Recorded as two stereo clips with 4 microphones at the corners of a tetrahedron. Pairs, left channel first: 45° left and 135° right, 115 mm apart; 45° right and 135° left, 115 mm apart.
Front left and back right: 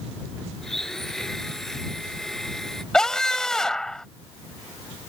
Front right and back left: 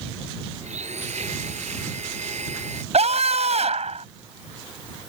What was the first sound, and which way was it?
A blender, 130° left.